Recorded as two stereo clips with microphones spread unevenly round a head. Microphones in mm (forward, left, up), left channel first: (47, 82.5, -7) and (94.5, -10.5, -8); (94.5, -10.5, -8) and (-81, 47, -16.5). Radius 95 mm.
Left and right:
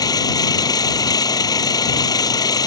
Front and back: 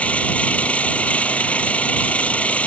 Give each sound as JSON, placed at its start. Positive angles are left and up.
{"t": 0.0, "sound": "an engine running", "azimuth_deg": 65}